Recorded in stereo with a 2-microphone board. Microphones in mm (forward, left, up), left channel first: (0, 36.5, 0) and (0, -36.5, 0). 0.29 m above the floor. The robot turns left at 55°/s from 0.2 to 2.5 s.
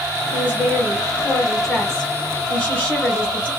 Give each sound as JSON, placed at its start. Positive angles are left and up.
{"t": 0.3, "sound": "a woman speaking", "side_deg": -20, "distance_m": 1.5}